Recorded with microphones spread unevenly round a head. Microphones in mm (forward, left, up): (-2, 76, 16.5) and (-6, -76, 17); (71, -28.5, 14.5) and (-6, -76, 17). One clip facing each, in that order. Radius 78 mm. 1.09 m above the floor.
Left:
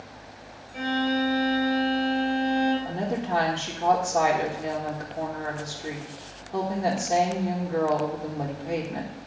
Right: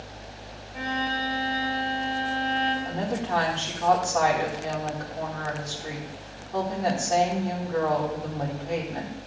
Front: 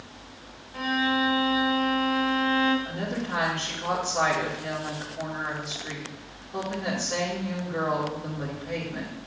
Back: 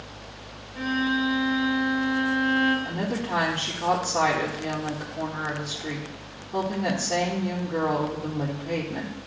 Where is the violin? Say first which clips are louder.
Left 5 dB, even; 50° left, 2 m.